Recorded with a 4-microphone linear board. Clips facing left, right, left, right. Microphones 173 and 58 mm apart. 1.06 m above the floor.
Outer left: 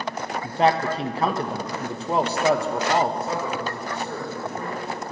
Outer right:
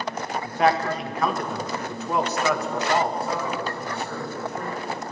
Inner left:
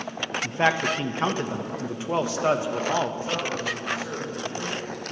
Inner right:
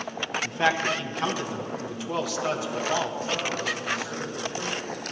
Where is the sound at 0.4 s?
30° left (ahead or behind), 1.1 m.